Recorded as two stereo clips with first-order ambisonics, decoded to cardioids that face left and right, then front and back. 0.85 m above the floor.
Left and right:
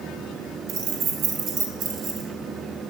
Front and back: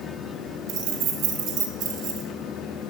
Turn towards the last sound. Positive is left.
turn(degrees=-140)